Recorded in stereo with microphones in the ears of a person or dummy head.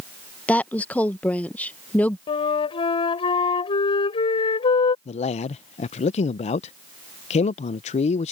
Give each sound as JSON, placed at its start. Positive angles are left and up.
{"t": 0.5, "sound": "a woman speaking", "side_deg": 10}
{"t": 2.3, "sound": "a flute", "side_deg": 25}
{"t": 5.0, "sound": "a man speaking", "side_deg": 40}